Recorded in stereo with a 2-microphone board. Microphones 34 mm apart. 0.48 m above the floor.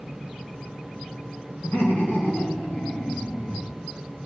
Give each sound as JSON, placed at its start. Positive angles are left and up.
{"t": 1.6, "sound": "laughter", "side_deg": 75, "distance_m": 6.0}